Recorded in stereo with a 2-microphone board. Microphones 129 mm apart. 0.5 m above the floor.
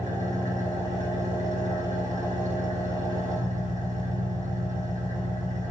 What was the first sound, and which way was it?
An engine running, 80° right.